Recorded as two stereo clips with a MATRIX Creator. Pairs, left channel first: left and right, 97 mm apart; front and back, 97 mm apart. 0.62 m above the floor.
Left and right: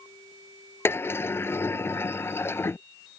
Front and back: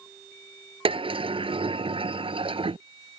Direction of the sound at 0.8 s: 155° left.